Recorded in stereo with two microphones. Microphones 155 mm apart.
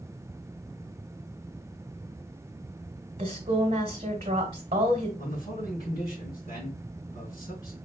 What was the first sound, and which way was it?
A woman speaking, 40° right (ahead or behind).